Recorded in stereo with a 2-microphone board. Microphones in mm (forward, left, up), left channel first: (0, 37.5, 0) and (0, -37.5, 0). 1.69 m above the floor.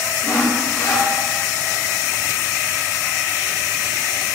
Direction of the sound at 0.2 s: 50° left (ahead or behind).